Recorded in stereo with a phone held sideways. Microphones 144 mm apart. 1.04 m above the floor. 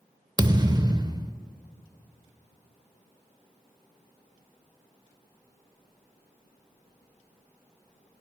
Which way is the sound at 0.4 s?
30° right (ahead or behind).